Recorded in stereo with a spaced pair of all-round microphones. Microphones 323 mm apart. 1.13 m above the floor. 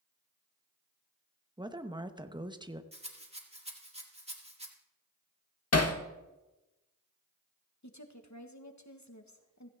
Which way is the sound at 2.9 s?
20° right (ahead or behind).